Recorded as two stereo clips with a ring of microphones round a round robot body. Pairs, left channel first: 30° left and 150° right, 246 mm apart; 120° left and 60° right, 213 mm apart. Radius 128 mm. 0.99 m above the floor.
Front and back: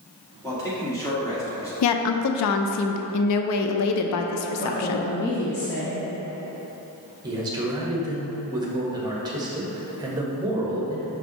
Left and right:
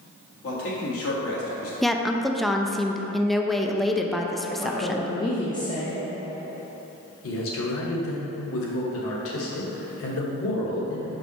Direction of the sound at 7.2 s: 135° left.